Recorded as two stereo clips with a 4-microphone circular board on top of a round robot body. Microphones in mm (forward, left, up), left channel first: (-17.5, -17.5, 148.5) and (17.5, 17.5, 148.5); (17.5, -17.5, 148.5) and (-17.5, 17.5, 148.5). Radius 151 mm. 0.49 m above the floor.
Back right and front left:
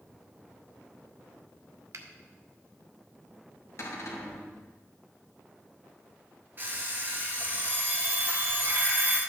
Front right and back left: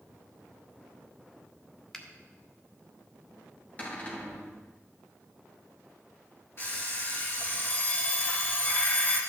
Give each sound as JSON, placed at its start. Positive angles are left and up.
{"t": 1.9, "sound": "a finger snap", "azimuth_deg": 35, "distance_m": 1.7}
{"t": 3.8, "sound": "a cupboard door", "azimuth_deg": -105, "distance_m": 3.0}
{"t": 6.6, "sound": "an alarm clock", "azimuth_deg": -5, "distance_m": 6.0}